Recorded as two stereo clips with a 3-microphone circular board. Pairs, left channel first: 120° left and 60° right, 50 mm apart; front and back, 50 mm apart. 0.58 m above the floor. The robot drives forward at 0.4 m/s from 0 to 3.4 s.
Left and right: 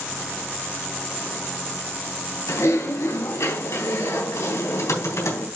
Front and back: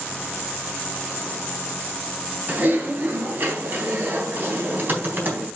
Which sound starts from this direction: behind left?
Typing on a keyboard, at 2.5 s.